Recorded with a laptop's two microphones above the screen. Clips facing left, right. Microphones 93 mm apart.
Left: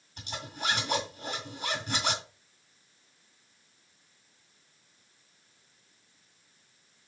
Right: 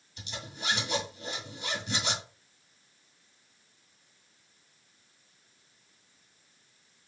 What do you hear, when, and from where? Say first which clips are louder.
0.2 s a zipper: left 4 dB; 45° left (ahead or behind), 1.8 m